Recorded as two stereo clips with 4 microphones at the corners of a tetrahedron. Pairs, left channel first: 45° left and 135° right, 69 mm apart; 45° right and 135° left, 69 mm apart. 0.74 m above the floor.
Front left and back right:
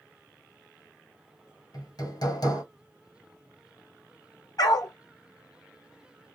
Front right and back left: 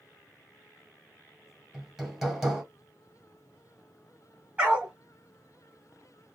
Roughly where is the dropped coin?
I don't hear a dropped coin.